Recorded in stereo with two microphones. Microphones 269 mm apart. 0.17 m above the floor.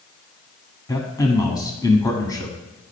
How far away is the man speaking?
About 1.0 m.